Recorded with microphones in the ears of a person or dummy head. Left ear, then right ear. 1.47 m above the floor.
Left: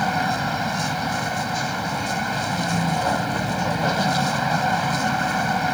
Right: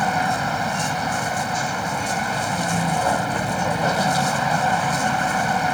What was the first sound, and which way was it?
A vehicle, 20° right (ahead or behind).